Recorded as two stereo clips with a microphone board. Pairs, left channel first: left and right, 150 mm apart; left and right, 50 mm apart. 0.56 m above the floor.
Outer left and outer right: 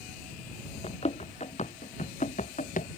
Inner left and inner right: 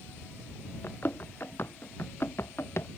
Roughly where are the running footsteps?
Left.